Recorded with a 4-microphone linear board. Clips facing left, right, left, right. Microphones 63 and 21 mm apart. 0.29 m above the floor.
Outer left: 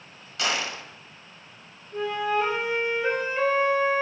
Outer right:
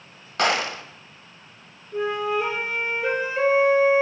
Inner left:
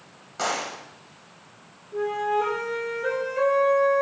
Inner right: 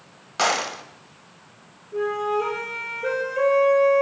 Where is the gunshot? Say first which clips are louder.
Outer right 6 dB, inner right 5 dB; 50° right (ahead or behind), 0.6 m.